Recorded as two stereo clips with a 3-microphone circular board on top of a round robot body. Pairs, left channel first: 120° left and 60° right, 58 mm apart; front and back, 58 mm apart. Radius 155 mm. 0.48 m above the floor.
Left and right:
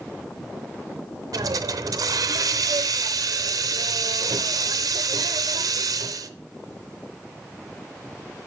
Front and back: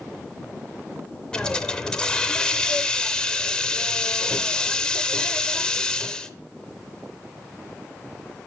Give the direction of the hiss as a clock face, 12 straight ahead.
3 o'clock.